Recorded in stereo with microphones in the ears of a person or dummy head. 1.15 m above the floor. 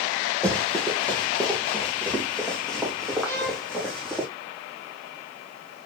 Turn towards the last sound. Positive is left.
turn(degrees=20)  # may be behind; listen again after turning